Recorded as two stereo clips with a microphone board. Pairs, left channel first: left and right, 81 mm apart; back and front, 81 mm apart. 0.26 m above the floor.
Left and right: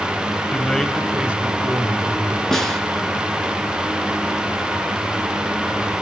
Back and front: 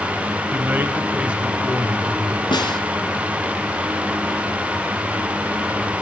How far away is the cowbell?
No cowbell in this recording.